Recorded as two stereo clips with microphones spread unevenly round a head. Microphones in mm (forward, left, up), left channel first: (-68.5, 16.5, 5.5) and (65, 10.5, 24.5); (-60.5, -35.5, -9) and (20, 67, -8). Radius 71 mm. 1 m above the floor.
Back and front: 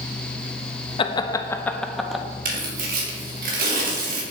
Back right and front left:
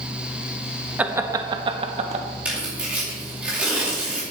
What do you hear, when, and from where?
1.0 s laughter: 130° left, 1.0 m; by 2.2 s 85° left, 1.3 m
2.5 s tearing paper: 30° right, 2.5 m